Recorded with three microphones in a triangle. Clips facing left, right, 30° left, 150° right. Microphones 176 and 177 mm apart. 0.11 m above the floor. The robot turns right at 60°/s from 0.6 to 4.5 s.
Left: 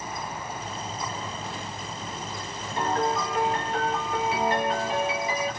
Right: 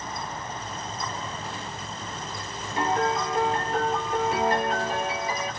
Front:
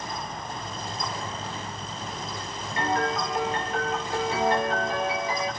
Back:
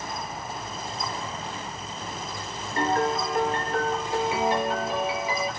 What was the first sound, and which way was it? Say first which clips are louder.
A piano: right 1 dB, back 2 dB; 170° right.